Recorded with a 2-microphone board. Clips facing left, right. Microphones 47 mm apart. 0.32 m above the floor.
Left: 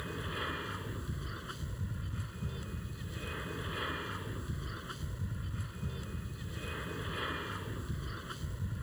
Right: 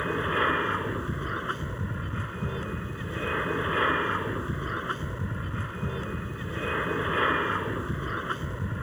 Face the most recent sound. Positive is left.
turn(degrees=-45)  # may be behind; listen again after turning